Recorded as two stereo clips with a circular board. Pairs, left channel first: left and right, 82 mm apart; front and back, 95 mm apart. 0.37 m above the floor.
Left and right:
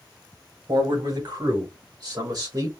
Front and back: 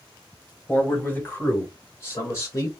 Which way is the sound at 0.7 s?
75° right.